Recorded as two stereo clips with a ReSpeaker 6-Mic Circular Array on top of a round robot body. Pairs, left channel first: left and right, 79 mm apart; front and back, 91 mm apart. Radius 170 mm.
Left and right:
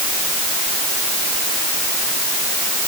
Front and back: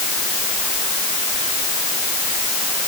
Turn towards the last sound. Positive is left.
No sound to turn to.